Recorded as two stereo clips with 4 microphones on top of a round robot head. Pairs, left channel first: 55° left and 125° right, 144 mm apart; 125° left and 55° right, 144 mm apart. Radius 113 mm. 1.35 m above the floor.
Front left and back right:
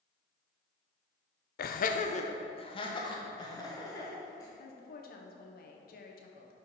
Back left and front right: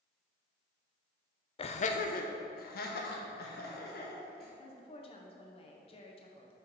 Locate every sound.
1.6 s laughter: 70° left, 0.5 m; by 4.5 s 125° left, 2.0 m
4.6 s a woman speaking: 75° left, 0.9 m